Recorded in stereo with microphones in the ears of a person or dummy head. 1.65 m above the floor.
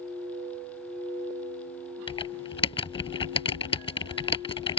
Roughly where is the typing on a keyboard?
Left.